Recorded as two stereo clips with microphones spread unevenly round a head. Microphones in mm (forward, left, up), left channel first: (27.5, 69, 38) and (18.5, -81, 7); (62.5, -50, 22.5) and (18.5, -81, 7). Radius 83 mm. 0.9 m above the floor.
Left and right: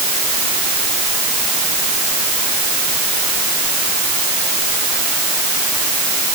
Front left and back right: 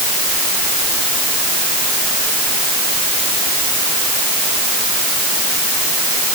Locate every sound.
Only background noise.